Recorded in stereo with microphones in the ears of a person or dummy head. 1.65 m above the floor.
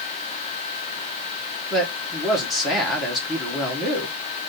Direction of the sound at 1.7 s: Centre (ahead or behind).